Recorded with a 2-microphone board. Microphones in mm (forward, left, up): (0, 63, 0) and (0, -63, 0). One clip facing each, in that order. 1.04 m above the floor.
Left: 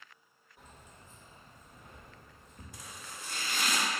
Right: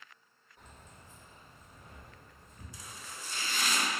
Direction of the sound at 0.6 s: 5° left (ahead or behind).